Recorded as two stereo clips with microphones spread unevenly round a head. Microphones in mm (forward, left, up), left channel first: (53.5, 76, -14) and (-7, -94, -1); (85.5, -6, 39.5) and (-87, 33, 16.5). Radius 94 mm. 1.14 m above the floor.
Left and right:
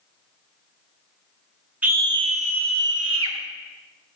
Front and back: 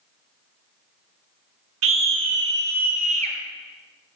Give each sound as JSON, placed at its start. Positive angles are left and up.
{"t": 1.8, "sound": "a scream", "azimuth_deg": 170, "distance_m": 1.4}